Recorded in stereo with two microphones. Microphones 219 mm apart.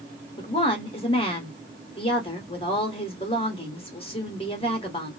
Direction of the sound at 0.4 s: 25° left (ahead or behind).